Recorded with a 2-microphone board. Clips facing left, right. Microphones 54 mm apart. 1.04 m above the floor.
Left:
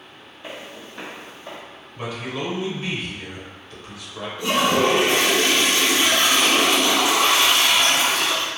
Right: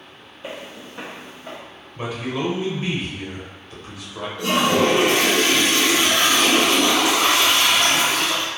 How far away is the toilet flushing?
About 1.3 m.